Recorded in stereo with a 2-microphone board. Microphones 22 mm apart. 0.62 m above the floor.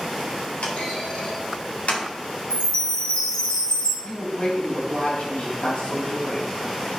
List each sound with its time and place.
0.6 s a clunk: 75° left (ahead or behind), 3 m
2.5 s a chime: 45° left (ahead or behind), 4.5 m
4.0 s a woman speaking: 75° left (ahead or behind), 3.5 m